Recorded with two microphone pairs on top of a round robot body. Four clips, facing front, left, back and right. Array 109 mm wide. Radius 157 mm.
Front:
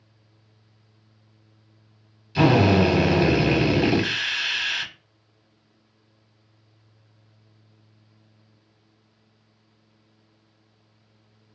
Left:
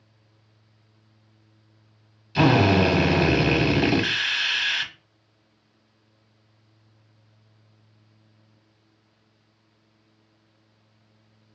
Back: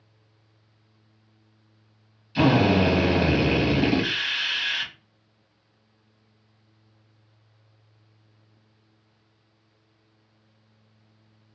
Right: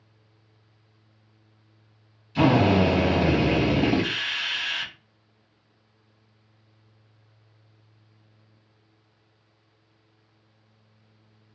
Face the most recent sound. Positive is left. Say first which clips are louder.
# left 1 dB, front 2 dB
turn(degrees=70)